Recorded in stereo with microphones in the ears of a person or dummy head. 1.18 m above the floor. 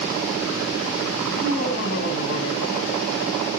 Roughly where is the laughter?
Left.